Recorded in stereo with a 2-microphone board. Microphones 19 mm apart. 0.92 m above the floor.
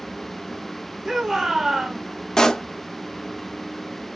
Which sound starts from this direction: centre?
A shout, at 1.1 s.